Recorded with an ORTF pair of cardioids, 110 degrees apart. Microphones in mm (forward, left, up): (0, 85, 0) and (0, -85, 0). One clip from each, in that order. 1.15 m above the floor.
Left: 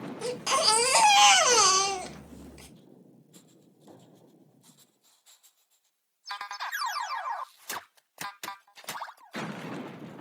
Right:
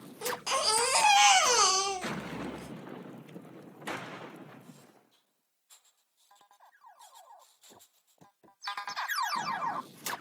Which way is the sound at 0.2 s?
20° left.